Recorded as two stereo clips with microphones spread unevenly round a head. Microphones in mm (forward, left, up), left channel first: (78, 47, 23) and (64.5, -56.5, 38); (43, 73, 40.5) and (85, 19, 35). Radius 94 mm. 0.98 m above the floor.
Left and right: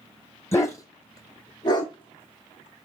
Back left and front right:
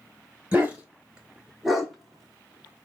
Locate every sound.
0.5 s a dog barking: 15° left, 2 m; by 2.9 s 60° left, 1.7 m